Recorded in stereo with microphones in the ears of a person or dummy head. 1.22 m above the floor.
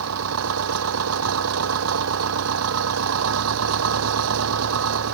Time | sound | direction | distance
0.0 | an engine running | 75° right (ahead or behind) | ?